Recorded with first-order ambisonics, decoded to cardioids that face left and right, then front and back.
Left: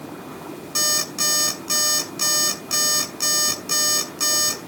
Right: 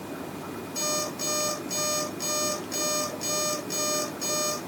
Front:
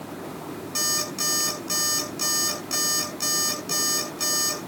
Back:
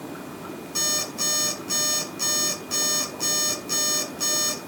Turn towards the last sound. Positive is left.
turn(degrees=75)